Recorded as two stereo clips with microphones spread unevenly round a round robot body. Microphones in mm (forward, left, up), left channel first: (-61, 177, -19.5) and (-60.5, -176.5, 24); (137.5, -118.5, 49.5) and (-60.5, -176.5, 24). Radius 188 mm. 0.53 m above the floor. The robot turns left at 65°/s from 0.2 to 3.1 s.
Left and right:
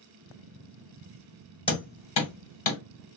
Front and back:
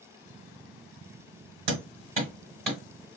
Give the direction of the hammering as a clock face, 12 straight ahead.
6 o'clock.